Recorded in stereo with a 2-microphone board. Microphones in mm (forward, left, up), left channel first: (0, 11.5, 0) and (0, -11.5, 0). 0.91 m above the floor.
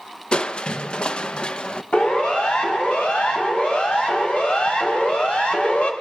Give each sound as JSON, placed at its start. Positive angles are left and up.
{"t": 0.3, "sound": "crushing", "side_deg": 40, "distance_m": 0.6}
{"t": 1.9, "sound": "a siren", "side_deg": 85, "distance_m": 7.0}